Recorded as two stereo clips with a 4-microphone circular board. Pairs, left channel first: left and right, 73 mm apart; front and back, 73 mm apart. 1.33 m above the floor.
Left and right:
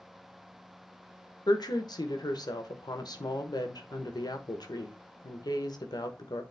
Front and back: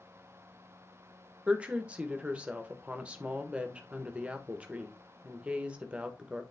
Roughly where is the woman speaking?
Left.